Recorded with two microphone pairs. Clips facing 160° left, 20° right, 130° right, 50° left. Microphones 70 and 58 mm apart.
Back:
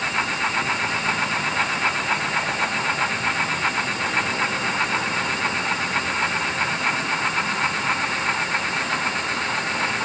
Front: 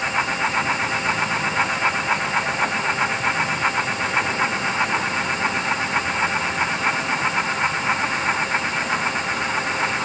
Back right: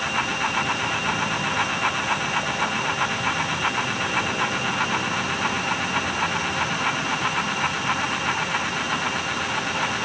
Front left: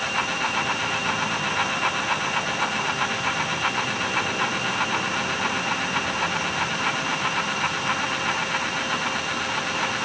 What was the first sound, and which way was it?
Only background noise.